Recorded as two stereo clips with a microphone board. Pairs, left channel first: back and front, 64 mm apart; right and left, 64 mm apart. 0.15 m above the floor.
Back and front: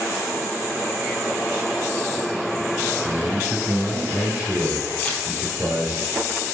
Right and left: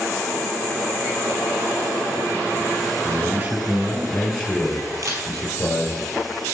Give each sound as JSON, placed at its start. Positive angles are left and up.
{"t": 3.0, "sound": "a man speaking", "azimuth_deg": 90, "distance_m": 1.9}
{"t": 5.0, "sound": "a camera shutter", "azimuth_deg": 120, "distance_m": 3.5}